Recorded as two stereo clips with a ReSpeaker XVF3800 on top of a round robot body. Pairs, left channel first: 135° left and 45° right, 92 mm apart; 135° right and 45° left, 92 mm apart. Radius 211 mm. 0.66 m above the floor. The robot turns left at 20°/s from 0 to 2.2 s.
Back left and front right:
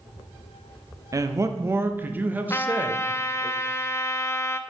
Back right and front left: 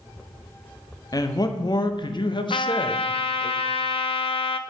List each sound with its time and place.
1.1 s a man speaking: 90° right, 1.0 m; by 3.5 s 115° right, 1.0 m
2.5 s a trumpet: 160° right, 0.5 m